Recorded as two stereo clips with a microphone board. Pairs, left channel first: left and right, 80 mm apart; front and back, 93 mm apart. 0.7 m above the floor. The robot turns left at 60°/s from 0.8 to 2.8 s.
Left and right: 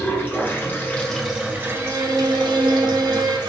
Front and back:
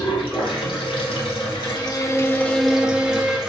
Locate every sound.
0.0 s running water: 25° left, 1.6 m; by 3.5 s 95° right, 1.6 m
1.6 s a violin: 30° right, 1.0 m; by 3.4 s 100° right, 1.0 m